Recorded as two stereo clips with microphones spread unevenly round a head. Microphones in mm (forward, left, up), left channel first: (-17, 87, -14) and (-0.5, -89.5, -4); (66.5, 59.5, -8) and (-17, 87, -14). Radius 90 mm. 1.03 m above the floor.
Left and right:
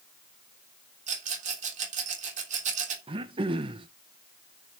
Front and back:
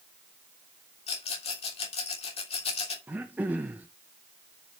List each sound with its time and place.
1.1 s a rattle: 30° right, 3 m
3.1 s throat clearing: 135° right, 0.9 m